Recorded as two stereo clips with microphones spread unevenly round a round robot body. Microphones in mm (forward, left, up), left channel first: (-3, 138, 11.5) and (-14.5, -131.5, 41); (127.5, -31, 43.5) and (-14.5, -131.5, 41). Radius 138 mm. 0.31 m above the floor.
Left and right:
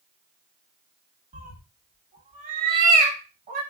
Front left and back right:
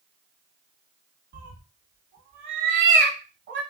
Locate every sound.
1.3 s a cat meowing: 155° right, 0.7 m